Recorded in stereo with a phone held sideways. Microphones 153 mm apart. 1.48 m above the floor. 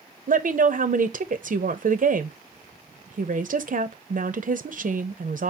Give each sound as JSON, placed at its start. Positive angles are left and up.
{"t": 0.3, "sound": "a woman speaking", "side_deg": -60, "distance_m": 0.6}